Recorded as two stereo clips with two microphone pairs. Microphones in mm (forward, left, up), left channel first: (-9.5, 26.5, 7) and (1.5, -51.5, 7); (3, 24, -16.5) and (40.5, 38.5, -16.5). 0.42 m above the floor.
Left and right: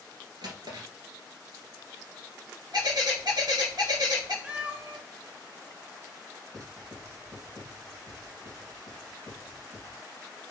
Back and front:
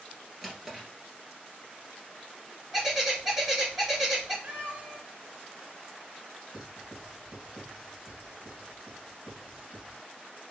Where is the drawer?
60° right, 1.6 m.